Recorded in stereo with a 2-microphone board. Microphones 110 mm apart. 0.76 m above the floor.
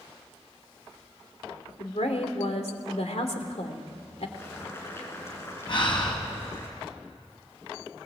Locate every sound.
1.8 s a woman speaking: 70° left (ahead or behind), 2.5 m
4.4 s boiling: 25° left (ahead or behind), 5 m
5.7 s breathing: 45° left (ahead or behind), 5 m